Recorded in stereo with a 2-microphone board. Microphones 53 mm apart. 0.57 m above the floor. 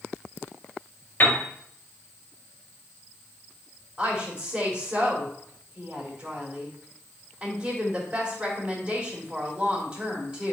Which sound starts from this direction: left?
A piano, at 1.2 s.